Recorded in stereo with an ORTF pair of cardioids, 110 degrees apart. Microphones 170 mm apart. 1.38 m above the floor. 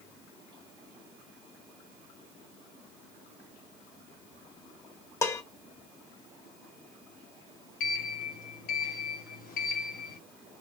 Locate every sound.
5.2 s dishes clattering: 20° left, 1.2 m
7.8 s a sliding door: 65° left, 1.7 m